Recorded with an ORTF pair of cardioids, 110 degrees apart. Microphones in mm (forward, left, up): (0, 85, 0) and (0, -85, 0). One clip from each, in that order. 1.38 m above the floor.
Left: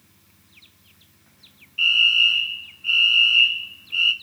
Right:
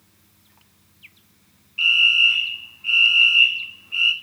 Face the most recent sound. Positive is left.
turn(degrees=-25)